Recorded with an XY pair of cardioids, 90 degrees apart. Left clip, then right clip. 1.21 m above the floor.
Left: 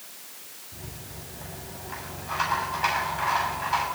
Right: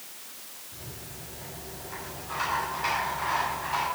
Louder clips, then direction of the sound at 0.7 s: Left 2 dB; 50° left.